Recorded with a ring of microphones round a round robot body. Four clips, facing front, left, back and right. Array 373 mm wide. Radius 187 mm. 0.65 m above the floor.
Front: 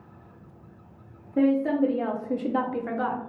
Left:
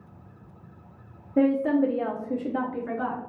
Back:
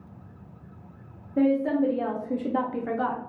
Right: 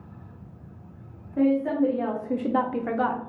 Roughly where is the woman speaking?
Left.